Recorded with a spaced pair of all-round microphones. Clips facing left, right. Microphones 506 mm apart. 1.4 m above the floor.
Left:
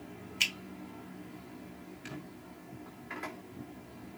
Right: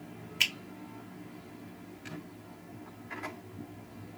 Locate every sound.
0.4 s a finger snap: 75° right (ahead or behind), 0.8 m